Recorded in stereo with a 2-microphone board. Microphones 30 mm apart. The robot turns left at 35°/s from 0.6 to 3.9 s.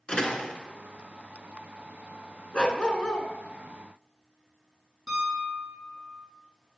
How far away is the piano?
About 3 m.